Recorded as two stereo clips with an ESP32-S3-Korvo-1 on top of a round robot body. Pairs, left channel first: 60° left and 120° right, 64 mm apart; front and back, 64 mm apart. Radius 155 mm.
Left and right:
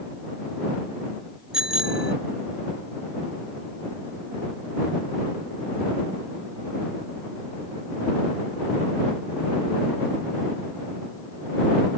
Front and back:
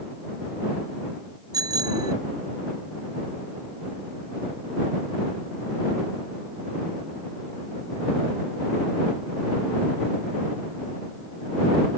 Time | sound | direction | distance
1.5 | a bicycle bell | 160° left | ?